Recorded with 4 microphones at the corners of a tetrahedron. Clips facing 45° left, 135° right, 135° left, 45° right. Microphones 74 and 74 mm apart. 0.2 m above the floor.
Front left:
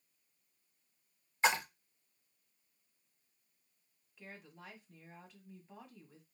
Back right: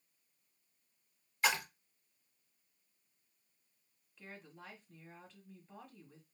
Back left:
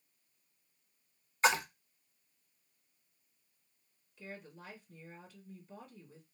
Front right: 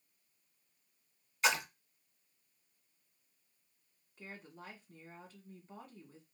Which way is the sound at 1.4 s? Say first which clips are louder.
Front left 3 dB, back left 3 dB; 100° left.